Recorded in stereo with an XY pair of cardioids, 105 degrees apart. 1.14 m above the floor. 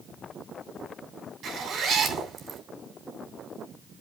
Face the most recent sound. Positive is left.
turn(degrees=-60)